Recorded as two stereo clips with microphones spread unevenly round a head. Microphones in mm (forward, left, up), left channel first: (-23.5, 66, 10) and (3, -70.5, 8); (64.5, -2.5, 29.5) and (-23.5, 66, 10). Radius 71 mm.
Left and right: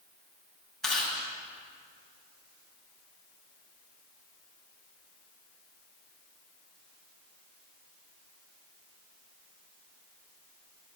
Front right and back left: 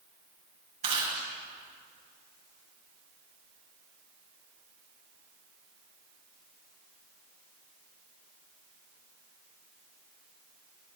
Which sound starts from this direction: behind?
Chewing, at 0.8 s.